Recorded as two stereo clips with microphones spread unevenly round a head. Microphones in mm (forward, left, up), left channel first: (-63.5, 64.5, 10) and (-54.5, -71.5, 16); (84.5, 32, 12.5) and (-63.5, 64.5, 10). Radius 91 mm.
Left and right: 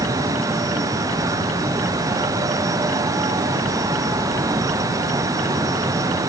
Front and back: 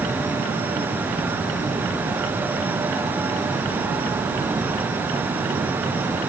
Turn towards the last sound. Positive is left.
No sound to turn to.